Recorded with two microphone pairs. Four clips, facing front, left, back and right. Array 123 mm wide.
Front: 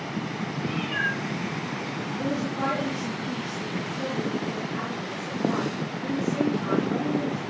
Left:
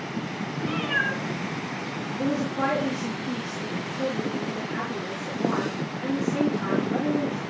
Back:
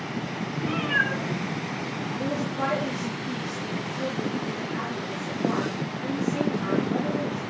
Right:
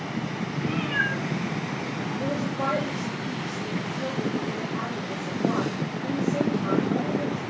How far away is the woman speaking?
About 9 m.